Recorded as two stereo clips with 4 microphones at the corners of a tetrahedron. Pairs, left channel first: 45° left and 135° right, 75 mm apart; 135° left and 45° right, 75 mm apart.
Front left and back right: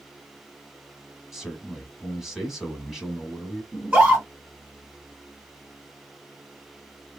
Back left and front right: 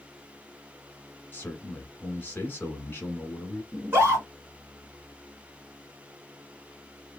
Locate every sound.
1.3 s a man speaking: 145° left, 1.1 m
3.7 s a scream: 80° right, 1.9 m